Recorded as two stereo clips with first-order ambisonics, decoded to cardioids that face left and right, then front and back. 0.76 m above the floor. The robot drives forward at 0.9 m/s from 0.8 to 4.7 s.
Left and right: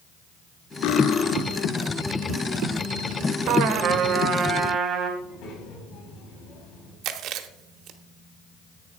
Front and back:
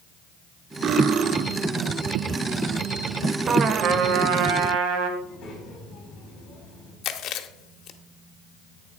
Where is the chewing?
45° right, 0.9 m.